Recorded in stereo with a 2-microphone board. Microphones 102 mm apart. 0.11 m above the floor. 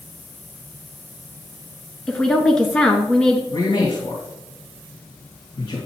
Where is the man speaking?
40° left (ahead or behind), 2 m.